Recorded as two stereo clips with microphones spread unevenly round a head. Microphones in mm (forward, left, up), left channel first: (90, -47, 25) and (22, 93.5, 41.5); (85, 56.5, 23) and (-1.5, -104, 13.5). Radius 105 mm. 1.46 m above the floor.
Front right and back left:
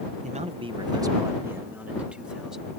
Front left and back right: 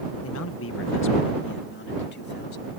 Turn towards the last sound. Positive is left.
turn(degrees=30)